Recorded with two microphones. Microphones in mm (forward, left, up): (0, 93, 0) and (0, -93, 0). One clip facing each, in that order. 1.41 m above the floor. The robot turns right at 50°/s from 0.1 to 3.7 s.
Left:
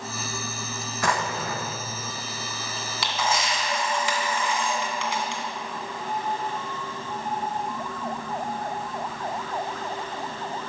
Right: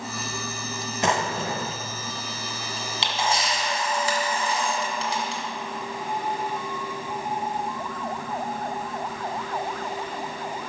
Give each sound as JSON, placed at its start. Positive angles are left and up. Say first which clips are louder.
{"t": 1.0, "sound": "a drawer", "louder": "right 2 dB", "side_deg": -25, "distance_m": 0.6}
{"t": 3.0, "sound": "a camera shutter", "louder": "even", "azimuth_deg": -145, "distance_m": 1.7}